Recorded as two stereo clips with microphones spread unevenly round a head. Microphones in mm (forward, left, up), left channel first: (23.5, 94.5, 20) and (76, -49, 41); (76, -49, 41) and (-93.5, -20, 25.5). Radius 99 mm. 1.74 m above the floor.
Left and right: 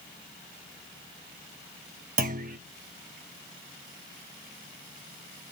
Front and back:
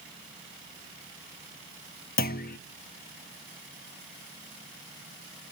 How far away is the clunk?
About 0.7 m.